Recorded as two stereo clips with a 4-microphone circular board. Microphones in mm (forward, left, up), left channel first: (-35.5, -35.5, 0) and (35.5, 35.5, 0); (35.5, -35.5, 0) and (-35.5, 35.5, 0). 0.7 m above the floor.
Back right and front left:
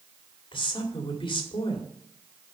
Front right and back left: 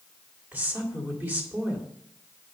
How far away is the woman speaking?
About 2 m.